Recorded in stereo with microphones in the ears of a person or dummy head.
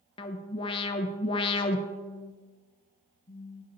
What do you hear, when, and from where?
0.2 s an alarm: 30° left (ahead or behind), 0.8 m
1.9 s a phone buzzing: 30° left (ahead or behind), 1.0 m